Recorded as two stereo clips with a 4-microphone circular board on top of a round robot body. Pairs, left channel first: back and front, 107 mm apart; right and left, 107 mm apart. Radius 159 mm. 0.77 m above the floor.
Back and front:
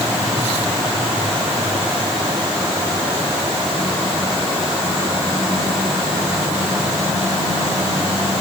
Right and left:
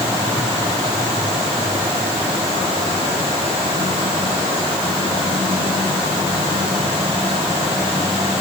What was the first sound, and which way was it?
Only background noise.